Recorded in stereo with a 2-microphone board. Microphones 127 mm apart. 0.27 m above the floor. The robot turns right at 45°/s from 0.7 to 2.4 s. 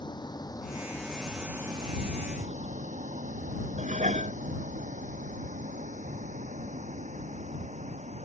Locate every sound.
0.0 s a vehicle: 35° left (ahead or behind); by 8.3 s 60° right (ahead or behind)
3.8 s dishes clattering: 75° right (ahead or behind)